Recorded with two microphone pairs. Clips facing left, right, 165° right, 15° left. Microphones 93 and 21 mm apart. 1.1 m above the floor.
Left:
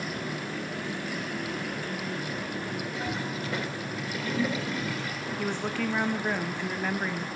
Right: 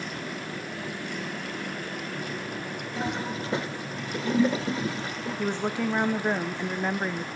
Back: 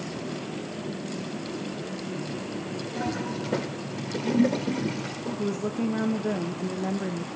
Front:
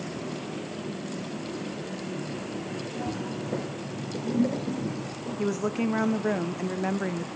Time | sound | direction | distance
3.0 | a toilet flushing | 150° right | 2 m
5.4 | a woman speaking | 20° right | 1.2 m